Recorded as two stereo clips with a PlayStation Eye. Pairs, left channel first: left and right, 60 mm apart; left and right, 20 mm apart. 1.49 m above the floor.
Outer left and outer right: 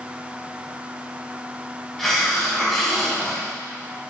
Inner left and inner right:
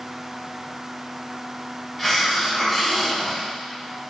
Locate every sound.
2.0 s a hiss: centre (ahead or behind), 3 m